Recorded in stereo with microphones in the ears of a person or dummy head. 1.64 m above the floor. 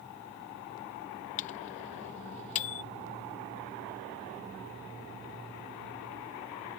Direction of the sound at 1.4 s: 40° left (ahead or behind).